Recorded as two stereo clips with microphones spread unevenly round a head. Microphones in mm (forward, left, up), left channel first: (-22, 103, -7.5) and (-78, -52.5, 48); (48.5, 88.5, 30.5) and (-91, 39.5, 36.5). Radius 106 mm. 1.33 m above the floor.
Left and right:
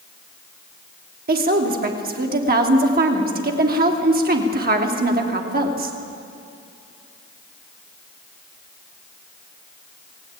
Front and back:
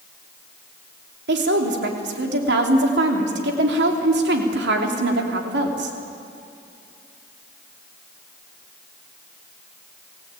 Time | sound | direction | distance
1.3 | a woman speaking | 140° right | 3 m